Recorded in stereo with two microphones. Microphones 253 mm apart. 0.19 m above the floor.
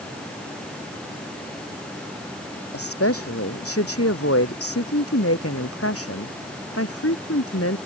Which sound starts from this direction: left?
A woman speaking, at 2.7 s.